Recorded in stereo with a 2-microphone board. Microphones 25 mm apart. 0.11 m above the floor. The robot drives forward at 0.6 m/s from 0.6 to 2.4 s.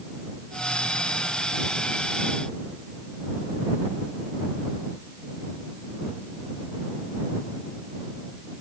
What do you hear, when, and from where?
Only background noise.